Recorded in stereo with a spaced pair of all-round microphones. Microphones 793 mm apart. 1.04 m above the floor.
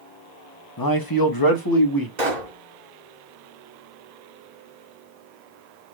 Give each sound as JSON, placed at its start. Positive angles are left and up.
{"t": 0.8, "sound": "a man speaking", "side_deg": 25, "distance_m": 0.9}
{"t": 2.2, "sound": "a pop", "side_deg": -60, "distance_m": 2.0}